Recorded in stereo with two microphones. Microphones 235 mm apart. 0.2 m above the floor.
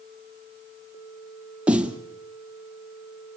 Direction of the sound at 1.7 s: 5° right (ahead or behind).